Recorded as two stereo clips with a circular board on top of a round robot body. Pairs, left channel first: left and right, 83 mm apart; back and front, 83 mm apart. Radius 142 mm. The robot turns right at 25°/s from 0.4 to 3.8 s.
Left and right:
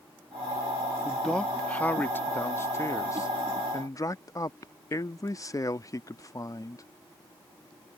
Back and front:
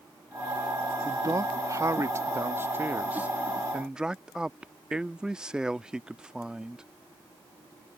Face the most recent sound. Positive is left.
turn(degrees=80)